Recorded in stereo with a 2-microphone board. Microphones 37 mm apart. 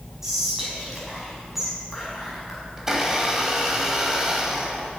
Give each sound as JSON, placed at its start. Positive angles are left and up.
{"t": 0.2, "sound": "whispering", "side_deg": -5, "distance_m": 5.0}
{"t": 2.8, "sound": "a blender", "side_deg": -15, "distance_m": 2.5}